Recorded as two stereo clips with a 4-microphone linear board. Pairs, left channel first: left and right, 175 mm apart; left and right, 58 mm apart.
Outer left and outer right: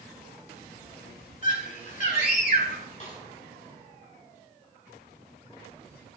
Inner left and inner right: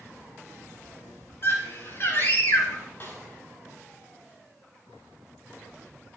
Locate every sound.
1.4 s a scream: 50° left (ahead or behind), 5.5 m; by 2.8 s 55° left (ahead or behind), 4.5 m
3.0 s a snare drum: 50° left (ahead or behind), 5 m